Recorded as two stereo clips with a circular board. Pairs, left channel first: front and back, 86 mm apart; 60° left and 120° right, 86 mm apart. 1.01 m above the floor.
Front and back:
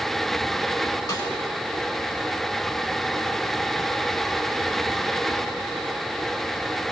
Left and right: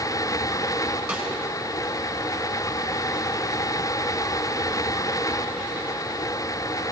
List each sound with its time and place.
1.1 s a snare drum: 40° right, 8 m